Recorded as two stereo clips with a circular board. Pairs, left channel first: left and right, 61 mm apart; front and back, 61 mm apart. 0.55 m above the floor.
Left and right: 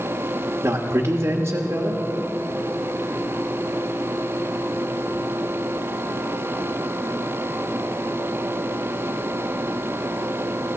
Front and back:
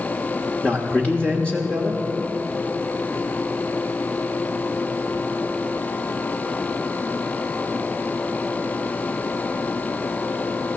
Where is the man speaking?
70° right, 1.2 m.